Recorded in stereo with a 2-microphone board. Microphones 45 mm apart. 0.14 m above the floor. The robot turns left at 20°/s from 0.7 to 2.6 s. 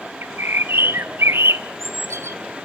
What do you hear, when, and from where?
0.2 s a bird: 65° right, 0.7 m; by 2.4 s 95° right, 0.7 m